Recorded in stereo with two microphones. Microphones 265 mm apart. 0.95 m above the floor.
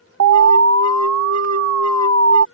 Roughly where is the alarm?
Right.